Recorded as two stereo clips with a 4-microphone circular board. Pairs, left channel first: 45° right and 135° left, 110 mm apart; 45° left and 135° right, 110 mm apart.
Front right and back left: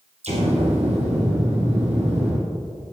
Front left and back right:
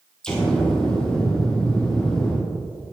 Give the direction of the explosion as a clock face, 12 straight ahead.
8 o'clock.